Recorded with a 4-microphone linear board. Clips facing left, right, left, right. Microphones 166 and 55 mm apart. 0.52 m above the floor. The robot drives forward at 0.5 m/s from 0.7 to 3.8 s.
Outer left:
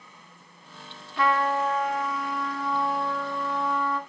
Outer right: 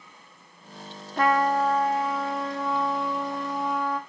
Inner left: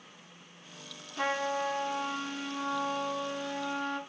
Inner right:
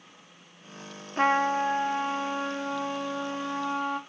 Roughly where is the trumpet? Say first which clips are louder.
Outer right 2 dB, inner right 7 dB; right.